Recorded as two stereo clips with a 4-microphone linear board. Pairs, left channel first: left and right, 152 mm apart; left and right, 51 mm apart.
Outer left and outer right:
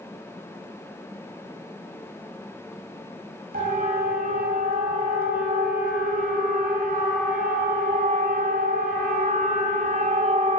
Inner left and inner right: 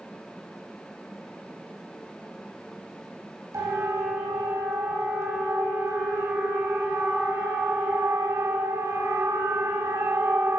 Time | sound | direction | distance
3.5 | a siren | 80° right | 7 m